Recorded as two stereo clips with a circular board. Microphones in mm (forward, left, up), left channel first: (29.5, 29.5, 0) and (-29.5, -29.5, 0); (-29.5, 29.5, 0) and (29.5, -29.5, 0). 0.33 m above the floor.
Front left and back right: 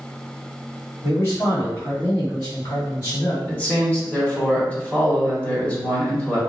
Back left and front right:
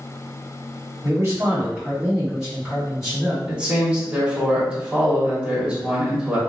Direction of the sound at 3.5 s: 15° left.